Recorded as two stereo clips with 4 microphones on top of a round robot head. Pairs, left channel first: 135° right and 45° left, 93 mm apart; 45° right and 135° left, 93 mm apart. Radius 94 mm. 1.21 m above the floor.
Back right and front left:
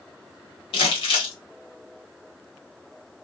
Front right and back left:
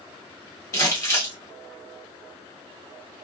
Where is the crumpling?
110° right, 1.4 m.